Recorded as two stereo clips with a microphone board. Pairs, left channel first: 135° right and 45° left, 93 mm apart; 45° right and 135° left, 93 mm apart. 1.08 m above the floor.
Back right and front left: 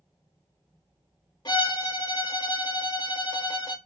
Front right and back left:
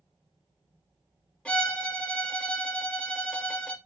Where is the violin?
120° right, 0.9 m.